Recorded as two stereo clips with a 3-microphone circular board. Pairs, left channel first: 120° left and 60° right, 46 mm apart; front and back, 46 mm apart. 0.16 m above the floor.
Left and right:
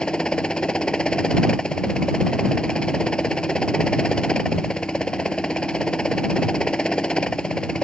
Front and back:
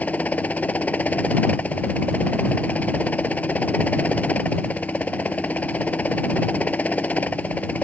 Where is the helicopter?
50° left.